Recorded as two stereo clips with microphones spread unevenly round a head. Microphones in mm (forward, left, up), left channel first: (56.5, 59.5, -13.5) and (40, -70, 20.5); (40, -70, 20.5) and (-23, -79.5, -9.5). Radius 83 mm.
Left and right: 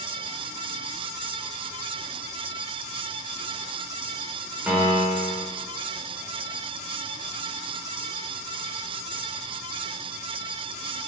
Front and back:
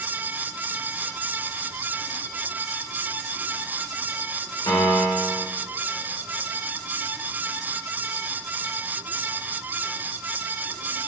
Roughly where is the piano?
Ahead.